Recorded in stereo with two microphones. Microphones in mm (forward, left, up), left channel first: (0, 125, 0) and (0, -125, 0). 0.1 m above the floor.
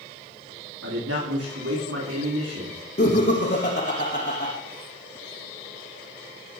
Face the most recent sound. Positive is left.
turn(degrees=45)  # may be behind; listen again after turning